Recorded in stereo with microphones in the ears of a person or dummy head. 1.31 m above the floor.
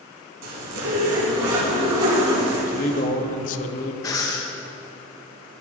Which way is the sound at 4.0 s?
20° left (ahead or behind).